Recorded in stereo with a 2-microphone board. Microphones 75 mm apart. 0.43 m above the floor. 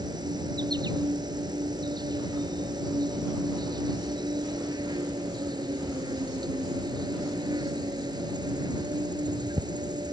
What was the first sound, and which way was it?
An insect, 65° right (ahead or behind).